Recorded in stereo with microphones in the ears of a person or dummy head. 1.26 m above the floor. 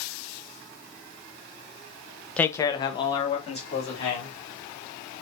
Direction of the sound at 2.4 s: 5° left (ahead or behind).